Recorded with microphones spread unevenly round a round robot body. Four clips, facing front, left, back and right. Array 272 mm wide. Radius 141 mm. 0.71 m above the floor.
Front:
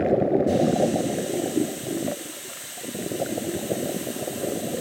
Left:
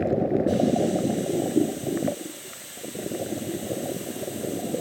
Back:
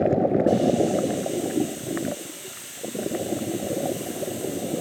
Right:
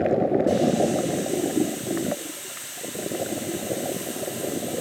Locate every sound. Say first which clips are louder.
0.5 s a hiss: right 1 dB, even; 85° right, 1.8 m